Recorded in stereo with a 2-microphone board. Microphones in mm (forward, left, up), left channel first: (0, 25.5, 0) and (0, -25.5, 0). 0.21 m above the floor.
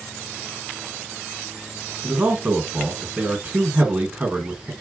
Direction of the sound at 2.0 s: 30° right (ahead or behind).